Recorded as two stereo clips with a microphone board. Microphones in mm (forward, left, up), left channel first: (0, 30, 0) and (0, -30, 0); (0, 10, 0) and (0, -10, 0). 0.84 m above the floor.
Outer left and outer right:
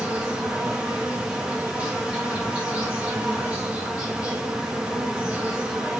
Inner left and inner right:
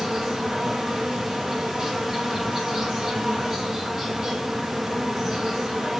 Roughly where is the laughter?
I don't hear laughter.